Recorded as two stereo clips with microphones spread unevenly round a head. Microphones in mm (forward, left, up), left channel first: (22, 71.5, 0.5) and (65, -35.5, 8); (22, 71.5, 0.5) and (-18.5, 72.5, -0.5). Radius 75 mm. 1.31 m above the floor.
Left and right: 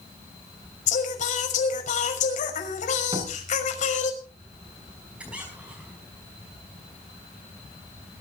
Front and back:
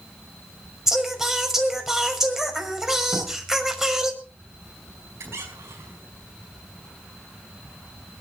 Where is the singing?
100° left, 6 m.